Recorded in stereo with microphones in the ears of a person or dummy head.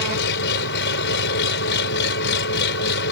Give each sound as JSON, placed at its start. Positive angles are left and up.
{"t": 0.0, "sound": "an engine running", "side_deg": 60}